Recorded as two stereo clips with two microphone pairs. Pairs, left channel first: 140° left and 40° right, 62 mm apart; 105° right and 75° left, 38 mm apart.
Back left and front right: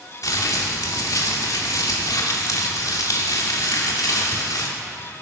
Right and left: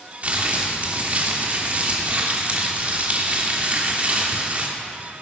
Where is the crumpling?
125° left, 2.5 m.